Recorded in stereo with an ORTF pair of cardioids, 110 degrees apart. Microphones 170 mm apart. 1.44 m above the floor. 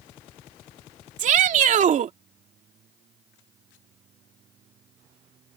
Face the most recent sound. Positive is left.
turn(degrees=-50)